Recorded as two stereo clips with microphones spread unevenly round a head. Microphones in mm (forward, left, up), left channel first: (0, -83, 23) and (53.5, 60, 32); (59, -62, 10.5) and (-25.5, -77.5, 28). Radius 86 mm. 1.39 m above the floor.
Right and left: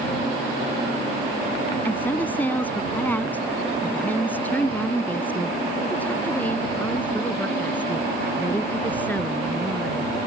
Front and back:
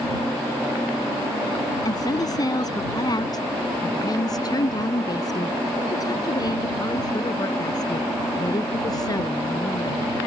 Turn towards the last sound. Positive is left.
turn(degrees=-30)